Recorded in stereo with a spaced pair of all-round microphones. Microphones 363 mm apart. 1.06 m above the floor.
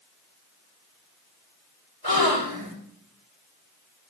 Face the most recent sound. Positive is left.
turn(degrees=85)